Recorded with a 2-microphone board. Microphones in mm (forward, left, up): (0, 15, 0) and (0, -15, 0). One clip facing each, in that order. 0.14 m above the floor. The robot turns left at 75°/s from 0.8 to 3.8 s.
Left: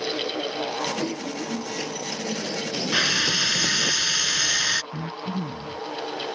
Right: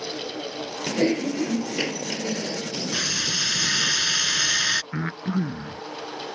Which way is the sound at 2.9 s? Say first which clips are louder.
Left 5 dB; 55° left.